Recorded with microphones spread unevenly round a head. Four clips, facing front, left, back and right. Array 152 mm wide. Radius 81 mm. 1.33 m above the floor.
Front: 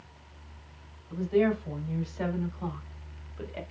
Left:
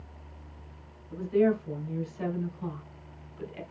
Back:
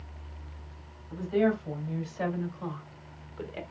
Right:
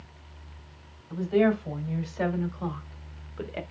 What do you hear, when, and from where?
1.1 s a woman speaking: 85° right, 3.5 m; by 3.6 s 95° right, 1.1 m